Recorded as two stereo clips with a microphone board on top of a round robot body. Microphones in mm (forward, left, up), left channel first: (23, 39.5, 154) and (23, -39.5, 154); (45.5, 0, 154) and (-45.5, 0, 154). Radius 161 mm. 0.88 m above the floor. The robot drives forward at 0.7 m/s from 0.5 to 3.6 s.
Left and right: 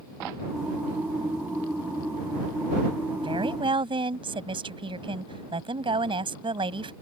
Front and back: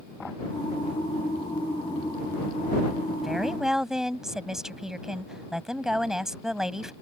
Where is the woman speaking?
90° right; by 6.9 s 95° right.